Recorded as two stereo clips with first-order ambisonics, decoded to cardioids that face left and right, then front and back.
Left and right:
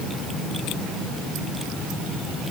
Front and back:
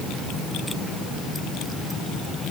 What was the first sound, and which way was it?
Only background noise.